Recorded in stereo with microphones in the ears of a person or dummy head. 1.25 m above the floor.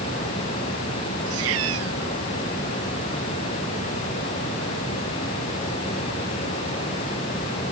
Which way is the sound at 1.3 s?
80° right.